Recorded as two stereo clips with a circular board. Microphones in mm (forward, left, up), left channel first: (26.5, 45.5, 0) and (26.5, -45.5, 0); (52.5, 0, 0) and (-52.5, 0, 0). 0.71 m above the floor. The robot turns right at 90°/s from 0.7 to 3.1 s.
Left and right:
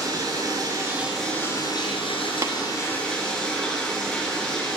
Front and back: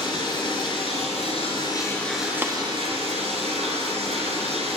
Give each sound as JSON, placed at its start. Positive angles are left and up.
{"t": 0.0, "sound": "running water", "azimuth_deg": -45, "distance_m": 3.5}
{"t": 2.4, "sound": "tapping", "azimuth_deg": -120, "distance_m": 1.1}